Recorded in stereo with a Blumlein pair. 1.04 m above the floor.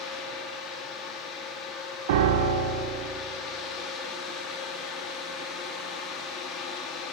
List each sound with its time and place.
0.0 s a fan: 25° left, 0.9 m
2.1 s a piano: 55° right, 0.6 m